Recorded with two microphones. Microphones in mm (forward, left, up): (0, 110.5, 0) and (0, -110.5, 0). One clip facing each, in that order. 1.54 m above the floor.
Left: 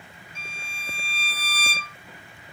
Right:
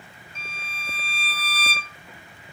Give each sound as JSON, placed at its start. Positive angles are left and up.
{"t": 0.3, "sound": "a violin", "side_deg": 10, "distance_m": 0.8}